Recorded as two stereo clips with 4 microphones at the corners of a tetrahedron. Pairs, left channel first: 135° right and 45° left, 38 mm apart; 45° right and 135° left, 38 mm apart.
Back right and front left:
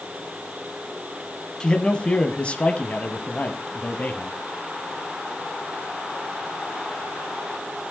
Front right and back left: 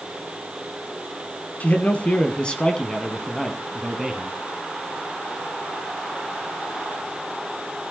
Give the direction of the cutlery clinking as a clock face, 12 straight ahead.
I don't hear cutlery clinking.